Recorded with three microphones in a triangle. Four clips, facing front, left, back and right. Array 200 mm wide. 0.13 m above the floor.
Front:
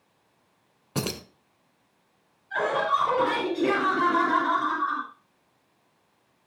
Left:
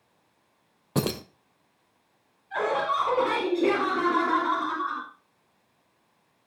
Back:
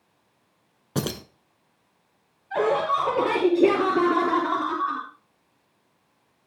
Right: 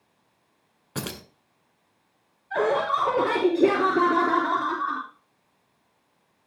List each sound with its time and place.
0.9 s keys jangling: 105° left, 0.9 m
2.5 s laughter: 130° right, 3.5 m